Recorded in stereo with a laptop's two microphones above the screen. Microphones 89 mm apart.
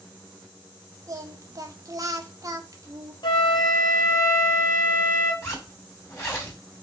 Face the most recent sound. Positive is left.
turn(degrees=30)  # may be behind; listen again after turning